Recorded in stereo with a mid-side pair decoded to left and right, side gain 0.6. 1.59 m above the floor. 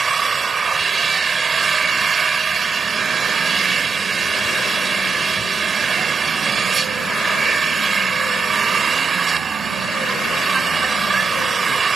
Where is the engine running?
30° right.